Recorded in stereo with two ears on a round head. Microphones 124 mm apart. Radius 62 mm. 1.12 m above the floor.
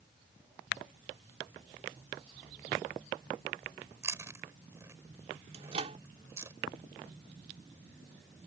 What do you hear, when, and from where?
4.0 s chewing: 20° right (ahead or behind)
5.5 s a microwave: 45° right (ahead or behind)